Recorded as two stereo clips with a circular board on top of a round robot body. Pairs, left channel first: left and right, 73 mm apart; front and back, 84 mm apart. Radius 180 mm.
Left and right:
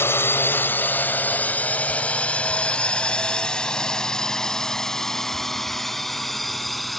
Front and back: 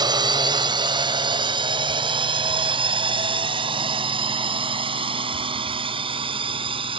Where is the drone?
145° left; by 7.0 s straight behind.